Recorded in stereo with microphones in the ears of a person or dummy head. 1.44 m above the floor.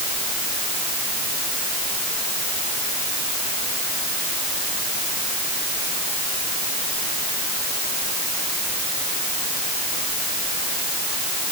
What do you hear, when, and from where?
Only background noise.